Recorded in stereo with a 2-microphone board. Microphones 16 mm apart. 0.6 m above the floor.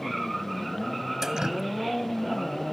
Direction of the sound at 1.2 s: 35° right (ahead or behind).